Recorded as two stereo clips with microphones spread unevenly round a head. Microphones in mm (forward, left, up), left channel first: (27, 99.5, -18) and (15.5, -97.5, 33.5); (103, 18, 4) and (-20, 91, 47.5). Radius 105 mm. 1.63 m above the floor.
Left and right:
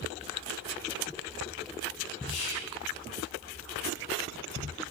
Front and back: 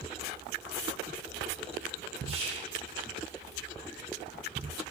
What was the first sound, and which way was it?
Whispering, 105° left.